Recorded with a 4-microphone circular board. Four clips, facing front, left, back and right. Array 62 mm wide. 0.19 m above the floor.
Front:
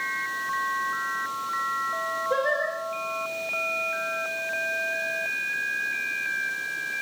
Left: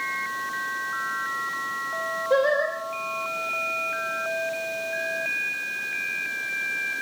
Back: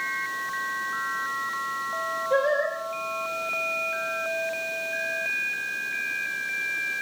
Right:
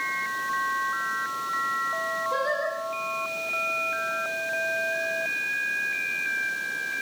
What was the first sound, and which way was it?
Singing, 85° left.